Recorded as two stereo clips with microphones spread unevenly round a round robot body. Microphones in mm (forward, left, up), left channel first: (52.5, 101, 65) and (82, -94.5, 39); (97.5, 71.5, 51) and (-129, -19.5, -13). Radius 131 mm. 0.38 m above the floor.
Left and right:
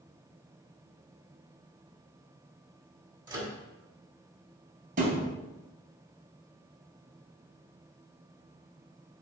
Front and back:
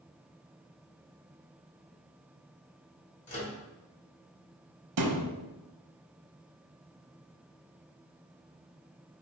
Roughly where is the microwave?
Ahead right.